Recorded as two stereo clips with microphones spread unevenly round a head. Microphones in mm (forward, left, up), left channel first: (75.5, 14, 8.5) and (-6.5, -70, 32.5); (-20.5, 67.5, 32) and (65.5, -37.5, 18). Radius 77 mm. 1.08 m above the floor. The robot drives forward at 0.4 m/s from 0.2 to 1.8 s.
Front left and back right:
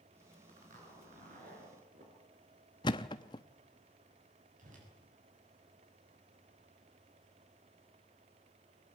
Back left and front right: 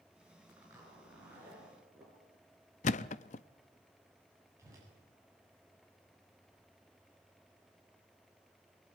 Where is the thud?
115° left, 0.6 m.